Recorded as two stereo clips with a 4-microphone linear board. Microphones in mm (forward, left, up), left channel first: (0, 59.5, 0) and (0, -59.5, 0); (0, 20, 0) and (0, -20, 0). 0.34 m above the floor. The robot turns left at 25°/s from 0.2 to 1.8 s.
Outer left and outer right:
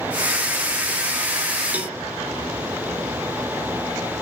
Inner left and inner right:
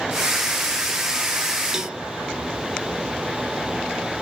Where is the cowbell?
15° right (ahead or behind), 0.8 m; by 2.0 s 10° right (ahead or behind), 0.8 m.